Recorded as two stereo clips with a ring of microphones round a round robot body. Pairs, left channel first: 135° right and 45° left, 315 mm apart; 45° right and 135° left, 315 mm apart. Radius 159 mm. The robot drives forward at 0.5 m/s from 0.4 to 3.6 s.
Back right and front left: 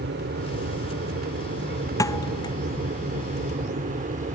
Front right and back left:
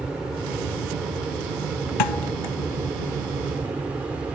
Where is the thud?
55° right.